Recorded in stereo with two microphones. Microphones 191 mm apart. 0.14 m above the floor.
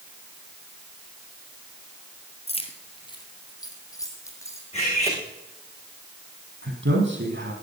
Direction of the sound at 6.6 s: 75° right (ahead or behind).